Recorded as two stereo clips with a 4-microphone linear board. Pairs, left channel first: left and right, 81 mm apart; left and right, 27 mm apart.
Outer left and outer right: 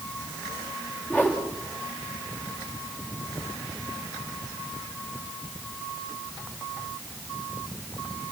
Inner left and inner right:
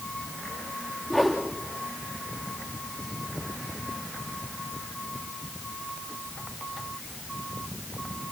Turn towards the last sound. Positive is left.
turn(degrees=20)  # may be behind; listen again after turning